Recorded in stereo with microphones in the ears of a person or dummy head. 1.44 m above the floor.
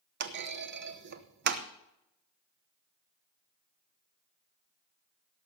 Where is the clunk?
55° right (ahead or behind), 0.9 m.